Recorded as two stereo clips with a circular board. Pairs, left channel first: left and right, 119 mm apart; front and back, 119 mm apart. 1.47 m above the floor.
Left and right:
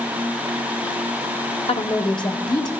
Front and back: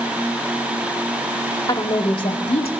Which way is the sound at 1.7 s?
55° left.